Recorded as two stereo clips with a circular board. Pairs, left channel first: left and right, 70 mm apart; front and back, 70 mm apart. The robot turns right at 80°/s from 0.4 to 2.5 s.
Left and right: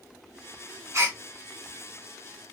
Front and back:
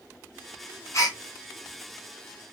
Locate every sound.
0.9 s a gasp: 45° right, 1.7 m; by 1.2 s 25° right, 1.7 m